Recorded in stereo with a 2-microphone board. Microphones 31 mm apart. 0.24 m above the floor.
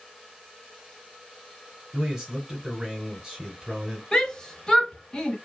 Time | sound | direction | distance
1.9 | a man speaking | 20° right (ahead or behind) | 1.4 m
4.1 | a shout | 20° left (ahead or behind) | 1.2 m